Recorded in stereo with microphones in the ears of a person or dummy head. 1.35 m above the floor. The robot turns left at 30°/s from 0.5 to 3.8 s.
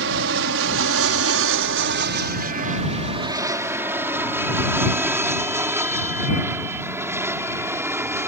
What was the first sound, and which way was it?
An aircraft, 60° right (ahead or behind).